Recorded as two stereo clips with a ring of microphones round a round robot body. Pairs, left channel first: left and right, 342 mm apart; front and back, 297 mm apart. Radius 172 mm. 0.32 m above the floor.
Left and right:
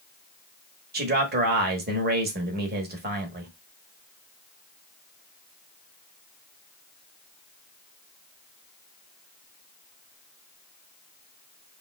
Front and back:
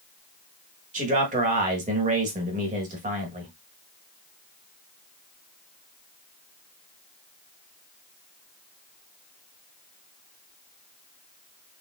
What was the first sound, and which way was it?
A man speaking, 130° right.